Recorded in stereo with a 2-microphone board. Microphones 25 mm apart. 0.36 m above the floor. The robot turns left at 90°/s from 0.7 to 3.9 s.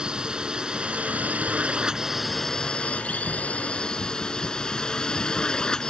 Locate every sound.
0.0 s a drone: 40° right; by 5.9 s 35° left